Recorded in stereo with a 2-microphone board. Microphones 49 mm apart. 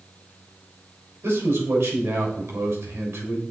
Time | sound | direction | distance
1.2 | a man speaking | 75° right (ahead or behind) | 3 m